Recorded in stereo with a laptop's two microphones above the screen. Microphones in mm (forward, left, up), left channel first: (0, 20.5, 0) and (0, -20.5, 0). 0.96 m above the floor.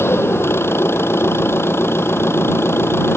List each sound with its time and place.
0.0 s an engine running: 85° left